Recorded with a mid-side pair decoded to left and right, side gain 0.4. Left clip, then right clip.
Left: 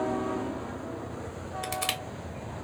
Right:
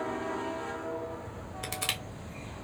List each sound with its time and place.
1.6 s crushing: 5° left, 1.3 m